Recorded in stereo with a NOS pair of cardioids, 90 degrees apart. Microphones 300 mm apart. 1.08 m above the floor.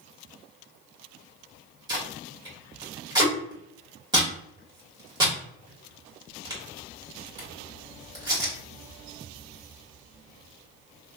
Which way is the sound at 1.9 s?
15° right.